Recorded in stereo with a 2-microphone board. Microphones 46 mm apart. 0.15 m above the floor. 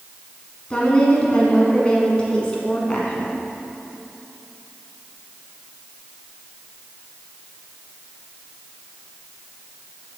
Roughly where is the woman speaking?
Left.